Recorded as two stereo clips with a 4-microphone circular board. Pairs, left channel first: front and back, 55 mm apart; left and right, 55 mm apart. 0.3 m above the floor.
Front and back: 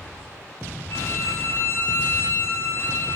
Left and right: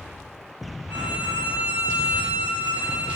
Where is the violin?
45° right, 5 m.